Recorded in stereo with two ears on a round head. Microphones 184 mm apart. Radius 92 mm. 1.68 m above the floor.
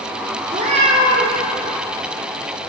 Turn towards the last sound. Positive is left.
turn(degrees=-30)  # may be behind; listen again after turning